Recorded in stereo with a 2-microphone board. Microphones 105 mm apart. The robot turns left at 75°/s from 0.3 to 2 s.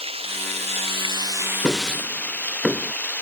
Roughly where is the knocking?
Centre.